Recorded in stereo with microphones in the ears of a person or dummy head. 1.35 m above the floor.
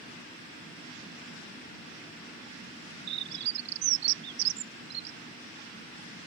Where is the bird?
60° right (ahead or behind).